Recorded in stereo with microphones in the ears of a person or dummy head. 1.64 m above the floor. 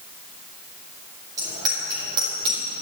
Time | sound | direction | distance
1.4 | a bicycle bell | 20° right (ahead or behind) | 5.5 m